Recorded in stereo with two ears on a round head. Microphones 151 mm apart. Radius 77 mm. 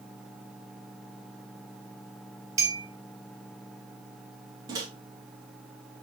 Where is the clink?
20° right (ahead or behind), 1.7 m.